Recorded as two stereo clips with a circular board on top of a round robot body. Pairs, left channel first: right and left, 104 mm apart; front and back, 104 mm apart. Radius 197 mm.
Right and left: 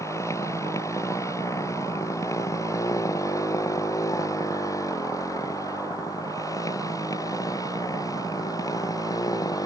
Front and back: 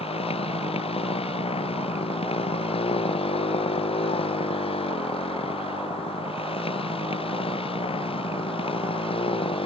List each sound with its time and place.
0.0 s a motorcycle: 25° right; by 9.7 s 35° right